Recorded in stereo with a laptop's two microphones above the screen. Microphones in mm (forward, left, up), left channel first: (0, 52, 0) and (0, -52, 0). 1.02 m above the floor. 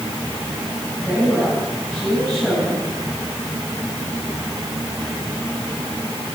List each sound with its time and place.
1.0 s a woman speaking: centre (ahead or behind), 10 m